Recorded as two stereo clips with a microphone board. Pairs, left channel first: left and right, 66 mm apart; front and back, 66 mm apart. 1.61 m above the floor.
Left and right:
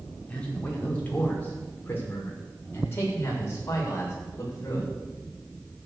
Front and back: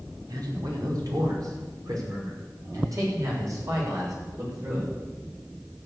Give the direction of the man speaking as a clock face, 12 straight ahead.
7 o'clock.